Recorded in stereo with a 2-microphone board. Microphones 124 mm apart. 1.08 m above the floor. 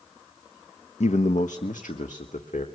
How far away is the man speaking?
About 0.6 m.